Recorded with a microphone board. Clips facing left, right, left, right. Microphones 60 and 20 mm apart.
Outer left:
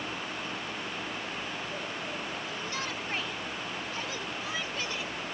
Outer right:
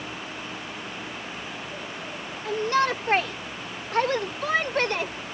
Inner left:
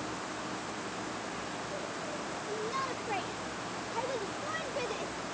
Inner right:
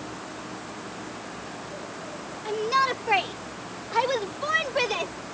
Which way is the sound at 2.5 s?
75° right (ahead or behind).